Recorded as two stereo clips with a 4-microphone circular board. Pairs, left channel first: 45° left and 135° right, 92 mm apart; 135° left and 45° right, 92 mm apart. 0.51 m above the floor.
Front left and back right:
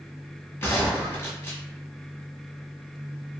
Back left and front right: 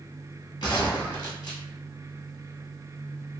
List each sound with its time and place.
0.6 s a gunshot: 110° left, 1.3 m